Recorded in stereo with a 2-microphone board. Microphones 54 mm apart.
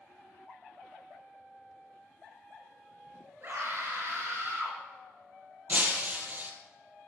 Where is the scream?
45° right (ahead or behind), 7 m.